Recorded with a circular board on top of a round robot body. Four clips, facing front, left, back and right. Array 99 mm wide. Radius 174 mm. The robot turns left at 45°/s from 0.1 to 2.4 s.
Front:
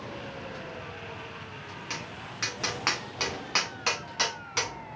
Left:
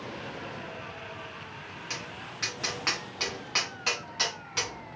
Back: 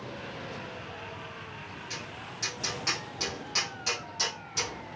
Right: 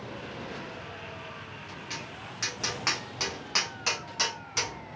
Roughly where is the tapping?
Ahead.